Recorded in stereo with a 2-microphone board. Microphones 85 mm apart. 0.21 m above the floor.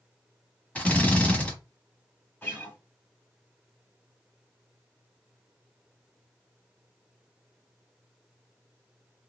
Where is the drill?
15° left (ahead or behind), 1.4 m.